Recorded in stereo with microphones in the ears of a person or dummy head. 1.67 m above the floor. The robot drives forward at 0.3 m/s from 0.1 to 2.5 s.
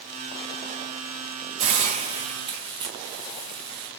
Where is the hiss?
40° right (ahead or behind), 0.6 m; by 3.9 s 25° right (ahead or behind), 0.8 m.